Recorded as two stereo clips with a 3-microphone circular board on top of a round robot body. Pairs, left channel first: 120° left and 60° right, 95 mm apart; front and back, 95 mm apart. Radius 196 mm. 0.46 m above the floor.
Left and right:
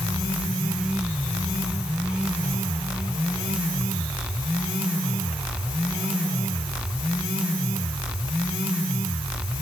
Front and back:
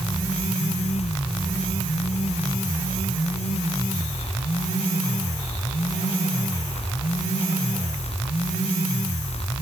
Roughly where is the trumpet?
No trumpet in this recording.